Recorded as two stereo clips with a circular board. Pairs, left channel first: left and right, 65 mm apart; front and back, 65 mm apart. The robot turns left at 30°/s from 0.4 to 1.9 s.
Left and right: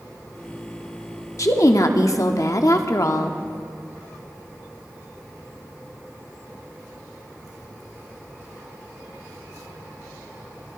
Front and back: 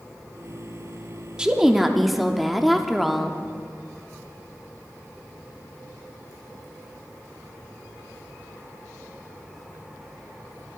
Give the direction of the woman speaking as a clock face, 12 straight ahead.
8 o'clock.